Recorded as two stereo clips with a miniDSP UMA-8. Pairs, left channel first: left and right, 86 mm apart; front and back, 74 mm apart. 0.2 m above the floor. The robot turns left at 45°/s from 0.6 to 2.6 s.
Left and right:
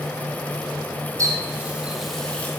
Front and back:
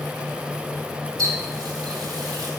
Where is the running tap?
140° right, 5 m; by 2.5 s 160° left, 5 m.